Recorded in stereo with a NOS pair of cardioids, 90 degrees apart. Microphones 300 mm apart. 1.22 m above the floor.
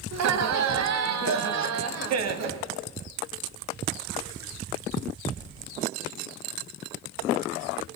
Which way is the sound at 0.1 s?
60° right.